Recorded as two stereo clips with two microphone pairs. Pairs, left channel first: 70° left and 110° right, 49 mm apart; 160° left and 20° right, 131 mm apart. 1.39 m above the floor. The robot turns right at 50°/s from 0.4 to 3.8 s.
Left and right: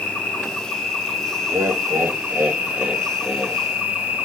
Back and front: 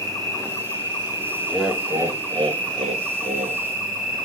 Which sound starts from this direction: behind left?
An insect, at 0.0 s.